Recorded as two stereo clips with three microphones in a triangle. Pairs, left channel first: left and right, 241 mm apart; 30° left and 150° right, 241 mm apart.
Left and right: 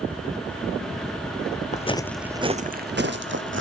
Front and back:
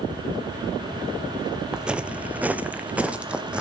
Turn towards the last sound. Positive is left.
turn(degrees=-65)